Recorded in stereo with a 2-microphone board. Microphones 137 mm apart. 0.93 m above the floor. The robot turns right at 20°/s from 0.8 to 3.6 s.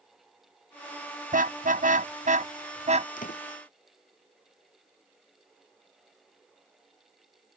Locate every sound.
1.3 s a car horn: 85° right; by 3.1 s 55° right (ahead or behind)
3.2 s a door slam: 80° left; by 3.4 s 85° left